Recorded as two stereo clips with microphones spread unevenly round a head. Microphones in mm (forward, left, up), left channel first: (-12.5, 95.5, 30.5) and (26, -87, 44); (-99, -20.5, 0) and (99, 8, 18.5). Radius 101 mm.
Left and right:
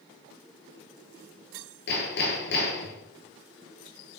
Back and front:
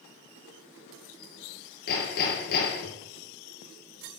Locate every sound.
1.9 s hammering: 140° left, 5 m